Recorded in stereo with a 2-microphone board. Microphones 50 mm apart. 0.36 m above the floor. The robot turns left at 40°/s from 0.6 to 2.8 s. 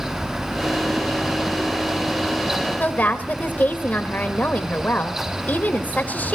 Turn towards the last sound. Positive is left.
turn(degrees=35)  # may be behind; listen again after turning